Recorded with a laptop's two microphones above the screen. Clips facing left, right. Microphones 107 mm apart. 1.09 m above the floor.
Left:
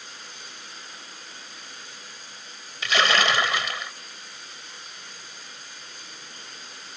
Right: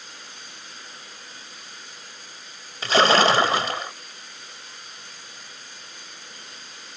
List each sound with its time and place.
2.8 s a splash: 35° right (ahead or behind)